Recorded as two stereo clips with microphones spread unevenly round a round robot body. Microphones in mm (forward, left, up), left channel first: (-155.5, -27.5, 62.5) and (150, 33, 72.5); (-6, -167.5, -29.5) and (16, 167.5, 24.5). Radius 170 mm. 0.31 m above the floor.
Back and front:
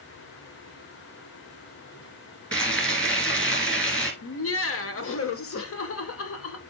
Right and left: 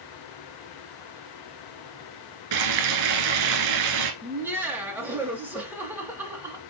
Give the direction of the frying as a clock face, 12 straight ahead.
9 o'clock.